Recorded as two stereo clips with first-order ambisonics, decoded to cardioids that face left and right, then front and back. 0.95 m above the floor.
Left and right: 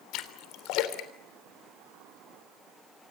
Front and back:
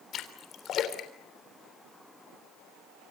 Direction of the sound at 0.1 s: 55° left.